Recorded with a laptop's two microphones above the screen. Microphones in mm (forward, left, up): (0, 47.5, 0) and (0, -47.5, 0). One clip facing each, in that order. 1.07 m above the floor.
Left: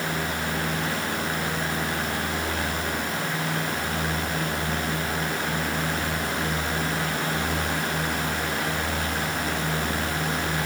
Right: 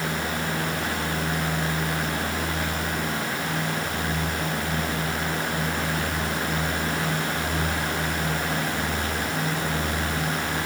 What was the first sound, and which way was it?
Only background noise.